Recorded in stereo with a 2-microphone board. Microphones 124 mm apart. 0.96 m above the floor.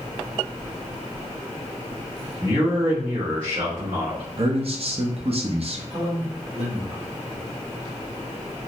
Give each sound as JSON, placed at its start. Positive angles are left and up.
{"t": 2.4, "sound": "a man speaking", "side_deg": -60, "distance_m": 1.3}
{"t": 4.4, "sound": "a man speaking", "side_deg": -55, "distance_m": 0.6}
{"t": 5.9, "sound": "a man speaking", "side_deg": -60, "distance_m": 1.6}